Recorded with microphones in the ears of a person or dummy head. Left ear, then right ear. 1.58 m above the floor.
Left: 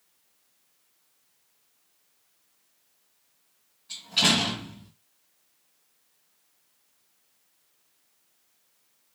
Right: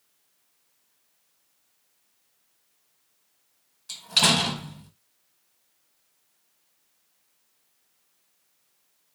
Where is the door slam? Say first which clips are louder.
Right 2 dB; 70° right (ahead or behind), 1.2 m.